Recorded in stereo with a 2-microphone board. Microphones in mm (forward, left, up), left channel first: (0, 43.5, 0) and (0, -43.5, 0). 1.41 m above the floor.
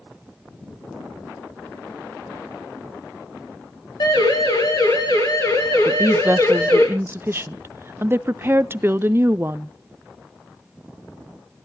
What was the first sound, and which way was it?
A siren, 55° left (ahead or behind).